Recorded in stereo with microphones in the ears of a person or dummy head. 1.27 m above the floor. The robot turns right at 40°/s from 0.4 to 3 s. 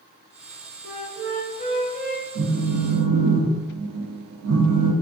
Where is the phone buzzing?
60° right (ahead or behind), 0.8 m; by 4.9 s 80° right, 0.8 m.